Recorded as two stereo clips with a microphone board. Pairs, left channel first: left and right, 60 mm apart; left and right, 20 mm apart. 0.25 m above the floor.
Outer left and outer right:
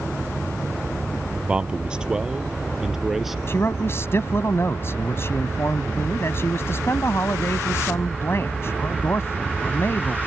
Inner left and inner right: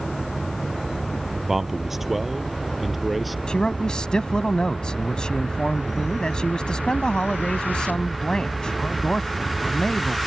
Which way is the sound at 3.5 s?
45° left (ahead or behind).